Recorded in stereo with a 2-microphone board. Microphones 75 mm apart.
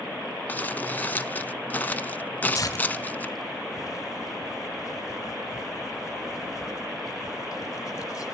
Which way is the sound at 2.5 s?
50° left (ahead or behind).